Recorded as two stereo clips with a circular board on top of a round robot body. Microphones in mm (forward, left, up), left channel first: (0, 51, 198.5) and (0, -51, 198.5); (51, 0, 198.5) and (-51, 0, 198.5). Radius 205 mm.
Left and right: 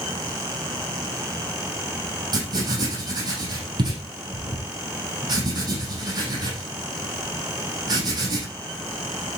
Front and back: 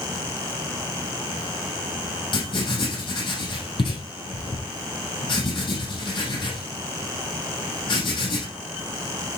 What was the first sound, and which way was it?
Writing, 40° right.